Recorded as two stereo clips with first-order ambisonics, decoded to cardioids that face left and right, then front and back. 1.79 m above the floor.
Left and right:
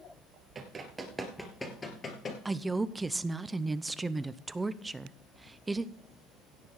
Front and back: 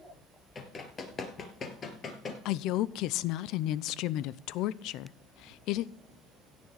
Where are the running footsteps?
45° right, 2.0 m; by 2.4 s 45° left, 2 m.